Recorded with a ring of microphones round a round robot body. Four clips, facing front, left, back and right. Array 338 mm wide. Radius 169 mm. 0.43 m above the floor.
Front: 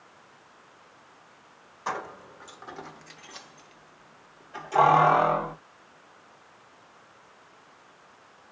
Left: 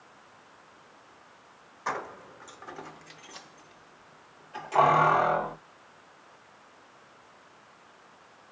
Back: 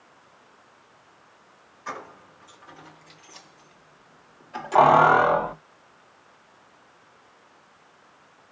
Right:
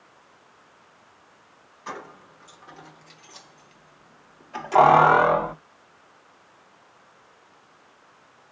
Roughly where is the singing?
I don't hear singing.